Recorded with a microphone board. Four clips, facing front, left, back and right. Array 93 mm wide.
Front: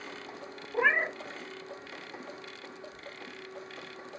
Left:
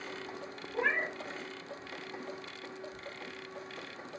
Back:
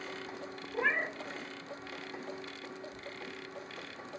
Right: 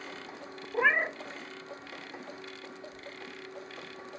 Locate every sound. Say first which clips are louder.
0.7 s a cat meowing: right 5 dB, front 5 dB; 55° right, 0.8 m